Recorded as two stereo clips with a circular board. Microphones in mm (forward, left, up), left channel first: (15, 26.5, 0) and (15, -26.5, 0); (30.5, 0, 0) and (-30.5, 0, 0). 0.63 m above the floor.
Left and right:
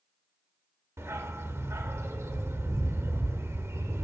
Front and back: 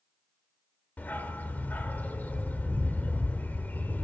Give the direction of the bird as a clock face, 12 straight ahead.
No bird in this recording.